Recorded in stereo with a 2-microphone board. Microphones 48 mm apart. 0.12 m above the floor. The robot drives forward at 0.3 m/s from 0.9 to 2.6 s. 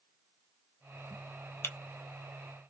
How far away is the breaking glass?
About 0.8 m.